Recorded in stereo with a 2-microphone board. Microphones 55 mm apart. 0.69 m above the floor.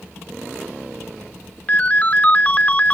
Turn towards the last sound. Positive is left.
turn(degrees=30)  # may be behind; listen again after turning